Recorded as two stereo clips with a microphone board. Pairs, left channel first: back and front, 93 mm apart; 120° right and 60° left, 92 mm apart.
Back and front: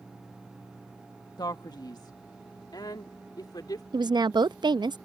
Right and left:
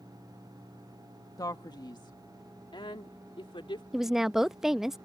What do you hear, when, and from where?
1.4 s a man speaking: 155° right; by 3.8 s 140° right
3.9 s a woman speaking: 25° right